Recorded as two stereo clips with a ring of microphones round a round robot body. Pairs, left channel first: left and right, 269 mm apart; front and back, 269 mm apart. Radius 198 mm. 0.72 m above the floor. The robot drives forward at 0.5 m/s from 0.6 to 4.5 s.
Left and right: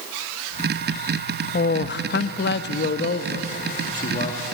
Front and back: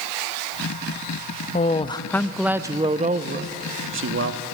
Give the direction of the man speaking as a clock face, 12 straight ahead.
10 o'clock.